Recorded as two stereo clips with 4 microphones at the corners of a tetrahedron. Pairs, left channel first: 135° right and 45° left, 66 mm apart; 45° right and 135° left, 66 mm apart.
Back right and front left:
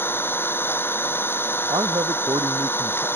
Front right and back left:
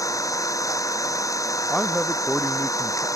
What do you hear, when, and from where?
0.0 s an engine running: 80° right
1.7 s a man speaking: 35° left